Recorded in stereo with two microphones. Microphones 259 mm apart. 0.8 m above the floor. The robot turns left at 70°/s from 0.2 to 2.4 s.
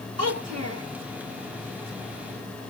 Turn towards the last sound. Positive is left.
turn(degrees=130)